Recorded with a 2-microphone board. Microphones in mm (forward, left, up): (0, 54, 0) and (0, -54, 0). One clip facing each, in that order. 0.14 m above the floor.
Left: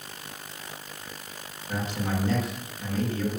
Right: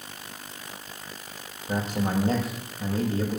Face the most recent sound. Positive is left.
turn(degrees=-40)  # may be behind; listen again after turning